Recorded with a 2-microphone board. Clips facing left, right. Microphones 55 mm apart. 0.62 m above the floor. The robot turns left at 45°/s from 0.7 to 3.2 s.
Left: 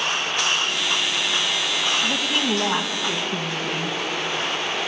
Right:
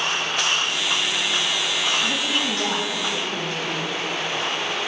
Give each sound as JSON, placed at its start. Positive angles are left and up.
{"t": 2.0, "sound": "a woman speaking", "azimuth_deg": -170, "distance_m": 3.5}